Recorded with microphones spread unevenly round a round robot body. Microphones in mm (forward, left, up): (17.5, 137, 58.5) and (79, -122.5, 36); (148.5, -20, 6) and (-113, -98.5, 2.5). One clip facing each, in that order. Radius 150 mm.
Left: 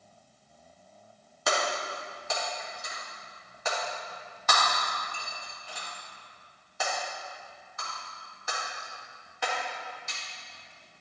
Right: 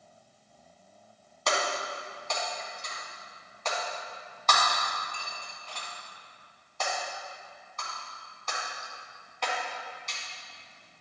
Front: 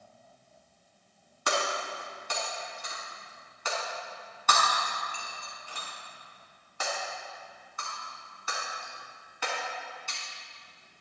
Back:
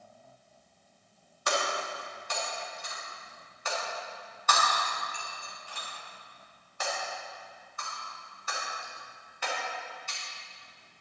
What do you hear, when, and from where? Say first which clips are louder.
1.5 s breaking glass: left 1 dB, even; 20° left, 2.5 m